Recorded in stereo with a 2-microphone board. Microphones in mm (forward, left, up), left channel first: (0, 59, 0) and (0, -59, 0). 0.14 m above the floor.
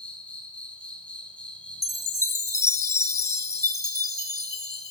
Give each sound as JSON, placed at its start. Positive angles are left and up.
{"t": 0.0, "sound": "an insect", "side_deg": 10, "distance_m": 2.5}
{"t": 1.8, "sound": "a chime", "side_deg": 25, "distance_m": 0.5}